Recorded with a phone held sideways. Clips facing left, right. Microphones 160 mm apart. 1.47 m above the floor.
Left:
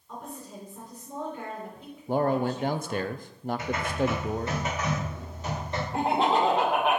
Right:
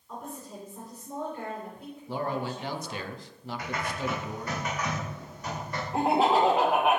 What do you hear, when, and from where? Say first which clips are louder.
0.1 s a woman speaking: even; 5° right (ahead or behind), 4 m
2.1 s a man speaking: left 7 dB; 50° left (ahead or behind), 0.5 m
3.6 s typing on a keyboard: left 4 dB; 25° left (ahead or behind), 2.5 m
5.9 s laughter: right 1 dB; 5° right (ahead or behind), 2 m